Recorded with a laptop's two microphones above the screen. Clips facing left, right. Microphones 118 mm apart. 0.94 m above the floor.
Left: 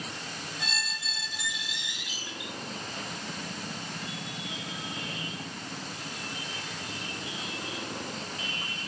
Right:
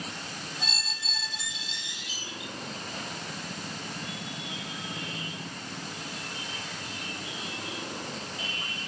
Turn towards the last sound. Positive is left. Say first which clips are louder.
# left 1 dB
turn(degrees=-30)  # may be behind; listen again after turning